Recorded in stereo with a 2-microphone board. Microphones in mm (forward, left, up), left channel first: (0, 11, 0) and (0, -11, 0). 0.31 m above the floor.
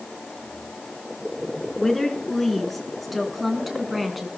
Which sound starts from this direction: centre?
A woman speaking, at 1.8 s.